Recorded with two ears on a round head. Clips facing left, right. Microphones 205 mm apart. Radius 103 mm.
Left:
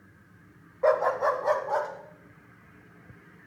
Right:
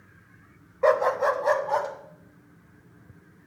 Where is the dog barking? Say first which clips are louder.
Right 2 dB; 45° right (ahead or behind), 0.8 m.